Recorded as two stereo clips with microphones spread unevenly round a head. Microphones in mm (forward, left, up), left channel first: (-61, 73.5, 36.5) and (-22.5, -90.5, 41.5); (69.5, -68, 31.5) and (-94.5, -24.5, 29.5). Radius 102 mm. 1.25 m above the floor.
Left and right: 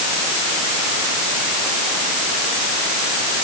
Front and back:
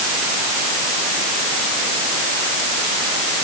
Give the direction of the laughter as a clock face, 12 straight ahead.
No laughter in this recording.